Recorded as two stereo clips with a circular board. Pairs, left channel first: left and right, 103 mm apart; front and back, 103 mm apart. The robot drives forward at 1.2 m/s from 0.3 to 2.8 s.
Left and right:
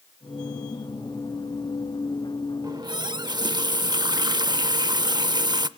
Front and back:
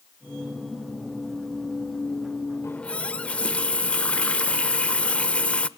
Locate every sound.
2.6 s a running tap: 50° right, 0.7 m; by 5.7 s 70° right, 0.6 m